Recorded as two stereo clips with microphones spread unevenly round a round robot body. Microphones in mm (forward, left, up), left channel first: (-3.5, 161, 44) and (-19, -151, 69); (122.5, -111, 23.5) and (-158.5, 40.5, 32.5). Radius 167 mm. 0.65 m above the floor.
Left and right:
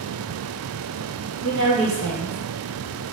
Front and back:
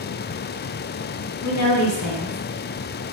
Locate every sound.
1.4 s a woman speaking: 50° right, 1.1 m